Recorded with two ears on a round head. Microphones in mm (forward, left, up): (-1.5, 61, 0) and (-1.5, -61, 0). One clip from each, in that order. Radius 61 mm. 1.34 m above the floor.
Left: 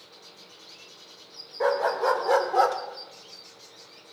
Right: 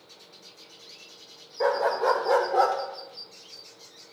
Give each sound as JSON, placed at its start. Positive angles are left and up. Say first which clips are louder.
{"t": 1.6, "sound": "a dog barking", "louder": "even", "side_deg": 10, "distance_m": 1.8}